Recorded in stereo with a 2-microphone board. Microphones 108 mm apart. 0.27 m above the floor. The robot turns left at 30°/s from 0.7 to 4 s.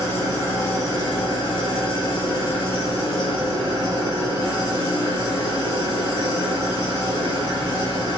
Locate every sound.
0.0 s an engine running: 145° left, 1.1 m; by 8.2 s 45° left, 1.1 m